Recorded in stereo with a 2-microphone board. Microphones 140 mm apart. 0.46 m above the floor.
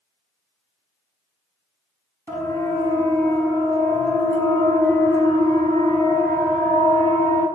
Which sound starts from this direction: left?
A siren, at 2.3 s.